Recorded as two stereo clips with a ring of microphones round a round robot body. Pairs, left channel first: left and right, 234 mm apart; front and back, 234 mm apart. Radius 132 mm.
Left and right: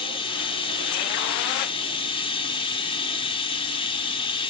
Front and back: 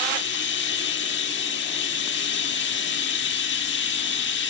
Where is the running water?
25° left, 1.2 m.